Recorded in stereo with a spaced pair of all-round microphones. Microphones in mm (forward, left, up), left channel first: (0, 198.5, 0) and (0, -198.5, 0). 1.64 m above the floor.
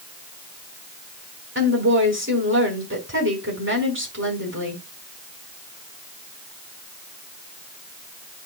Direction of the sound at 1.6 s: 30° right (ahead or behind).